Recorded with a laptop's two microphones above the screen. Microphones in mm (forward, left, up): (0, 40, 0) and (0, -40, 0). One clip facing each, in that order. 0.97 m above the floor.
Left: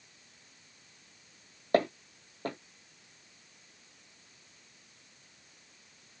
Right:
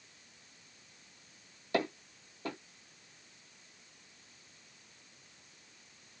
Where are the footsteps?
45° left (ahead or behind), 1.7 m.